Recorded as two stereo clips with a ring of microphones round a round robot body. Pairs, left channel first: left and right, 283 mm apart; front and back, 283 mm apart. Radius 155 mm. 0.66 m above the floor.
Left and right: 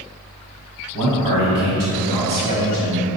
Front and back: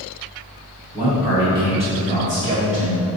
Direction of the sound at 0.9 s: 95° right.